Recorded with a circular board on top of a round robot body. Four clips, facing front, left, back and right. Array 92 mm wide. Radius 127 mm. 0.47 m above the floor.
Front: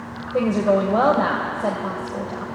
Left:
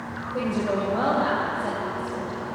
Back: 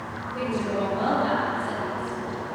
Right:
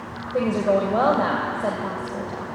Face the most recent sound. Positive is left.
turn(degrees=-35)